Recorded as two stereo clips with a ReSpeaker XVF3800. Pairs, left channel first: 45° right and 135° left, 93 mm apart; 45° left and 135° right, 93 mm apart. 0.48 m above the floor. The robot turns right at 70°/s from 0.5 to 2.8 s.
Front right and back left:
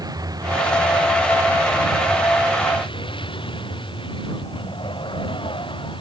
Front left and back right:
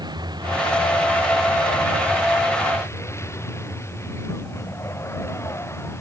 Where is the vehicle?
175° right; by 6.0 s 20° right.